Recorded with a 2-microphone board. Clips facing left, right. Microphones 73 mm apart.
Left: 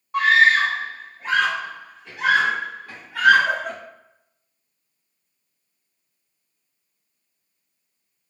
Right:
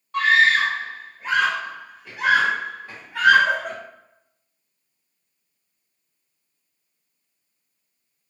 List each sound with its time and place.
0.1 s a scream: 15° left (ahead or behind), 1.3 m; by 3.8 s 25° right (ahead or behind), 1.8 m